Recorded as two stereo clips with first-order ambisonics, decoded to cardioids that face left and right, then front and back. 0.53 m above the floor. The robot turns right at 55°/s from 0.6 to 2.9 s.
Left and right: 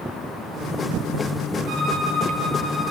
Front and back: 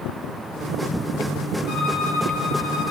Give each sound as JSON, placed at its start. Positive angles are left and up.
{"t": 1.7, "sound": "a violin", "azimuth_deg": -55, "distance_m": 1.7}